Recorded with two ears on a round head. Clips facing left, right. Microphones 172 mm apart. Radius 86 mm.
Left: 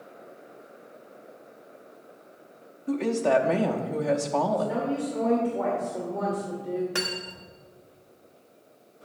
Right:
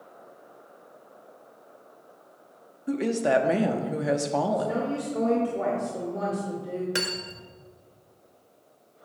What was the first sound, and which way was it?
A woman speaking, 15° right (ahead or behind).